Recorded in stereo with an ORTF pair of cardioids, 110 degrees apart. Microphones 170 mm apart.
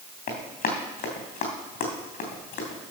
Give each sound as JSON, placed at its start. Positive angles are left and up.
{"t": 0.3, "sound": "running footsteps", "azimuth_deg": 65, "distance_m": 3.5}